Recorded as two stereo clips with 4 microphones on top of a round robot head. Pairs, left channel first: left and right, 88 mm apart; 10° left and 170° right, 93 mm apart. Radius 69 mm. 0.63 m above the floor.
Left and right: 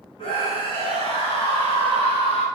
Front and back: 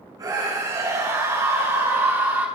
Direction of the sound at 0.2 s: 140° left.